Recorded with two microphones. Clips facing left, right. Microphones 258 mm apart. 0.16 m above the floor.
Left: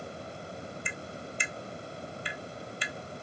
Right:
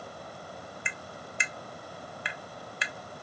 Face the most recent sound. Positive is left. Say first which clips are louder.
# left 3 dB
turn(degrees=-70)  # may be behind; listen again after turning